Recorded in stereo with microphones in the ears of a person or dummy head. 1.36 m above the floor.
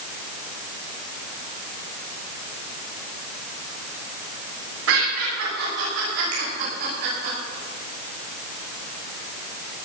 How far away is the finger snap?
About 7 m.